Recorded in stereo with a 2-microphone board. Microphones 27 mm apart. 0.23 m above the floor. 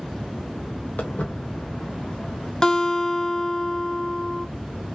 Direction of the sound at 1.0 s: 85° left.